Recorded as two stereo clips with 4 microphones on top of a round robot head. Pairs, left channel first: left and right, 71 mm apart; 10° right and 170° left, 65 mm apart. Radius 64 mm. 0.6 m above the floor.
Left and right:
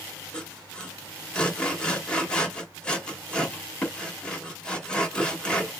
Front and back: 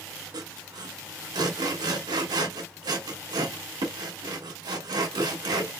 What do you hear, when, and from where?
0.3 s sawing: 165° left, 1.1 m